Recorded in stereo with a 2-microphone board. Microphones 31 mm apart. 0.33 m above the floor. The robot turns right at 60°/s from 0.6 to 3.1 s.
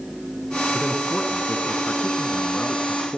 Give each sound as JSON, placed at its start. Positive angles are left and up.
{"t": 0.7, "sound": "a man speaking", "azimuth_deg": 15, "distance_m": 3.0}